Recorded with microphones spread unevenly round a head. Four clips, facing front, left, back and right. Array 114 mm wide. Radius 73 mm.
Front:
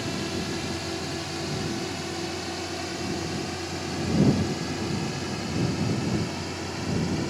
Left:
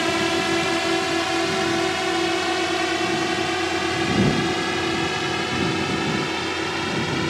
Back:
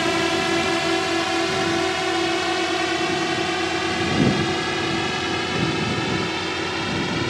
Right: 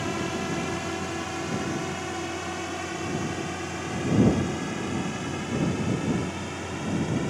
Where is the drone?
130° left; by 7.3 s 110° left.